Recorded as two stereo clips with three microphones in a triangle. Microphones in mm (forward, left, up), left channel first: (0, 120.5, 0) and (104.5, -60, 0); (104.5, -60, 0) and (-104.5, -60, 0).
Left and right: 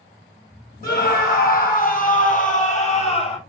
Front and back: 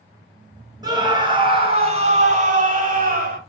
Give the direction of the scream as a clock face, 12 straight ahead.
8 o'clock.